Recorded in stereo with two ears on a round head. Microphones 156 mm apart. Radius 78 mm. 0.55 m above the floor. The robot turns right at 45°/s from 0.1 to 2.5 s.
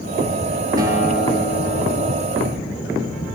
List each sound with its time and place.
0.8 s a guitar: 20° right, 7.5 m; by 2.1 s 40° left, 7.5 m